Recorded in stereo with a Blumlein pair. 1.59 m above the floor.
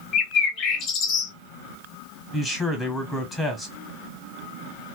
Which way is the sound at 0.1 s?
35° left.